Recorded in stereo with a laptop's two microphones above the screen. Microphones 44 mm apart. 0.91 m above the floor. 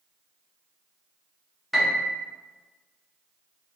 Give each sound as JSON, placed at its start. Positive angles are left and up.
{"t": 1.7, "sound": "a piano", "side_deg": 0, "distance_m": 0.7}